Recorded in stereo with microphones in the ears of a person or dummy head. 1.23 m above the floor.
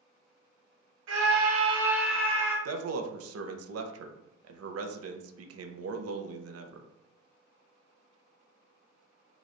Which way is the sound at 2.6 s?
75° right (ahead or behind).